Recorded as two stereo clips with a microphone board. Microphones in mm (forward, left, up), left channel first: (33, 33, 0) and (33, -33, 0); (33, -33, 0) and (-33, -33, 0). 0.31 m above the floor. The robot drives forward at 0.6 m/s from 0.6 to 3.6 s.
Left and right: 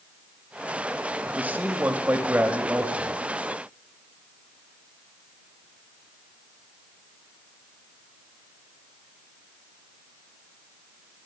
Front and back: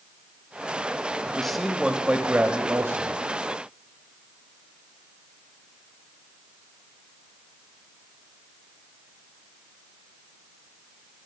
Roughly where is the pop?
No pop in this recording.